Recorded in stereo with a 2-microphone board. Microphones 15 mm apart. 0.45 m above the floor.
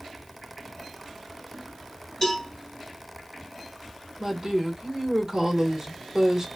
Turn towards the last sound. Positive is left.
turn(degrees=-35)  # may be behind; listen again after turning